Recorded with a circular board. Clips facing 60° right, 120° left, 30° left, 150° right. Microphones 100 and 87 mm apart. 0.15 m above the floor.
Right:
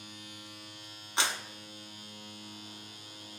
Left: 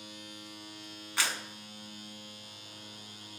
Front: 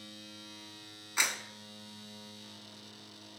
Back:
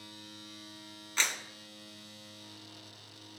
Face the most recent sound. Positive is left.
turn(degrees=-30)